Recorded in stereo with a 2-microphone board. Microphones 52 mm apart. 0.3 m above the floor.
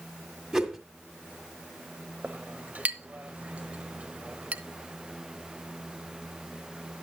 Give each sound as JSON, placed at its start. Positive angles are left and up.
{"t": 0.5, "sound": "a whoosh", "side_deg": -10, "distance_m": 1.8}
{"t": 2.2, "sound": "a clink", "side_deg": -25, "distance_m": 0.8}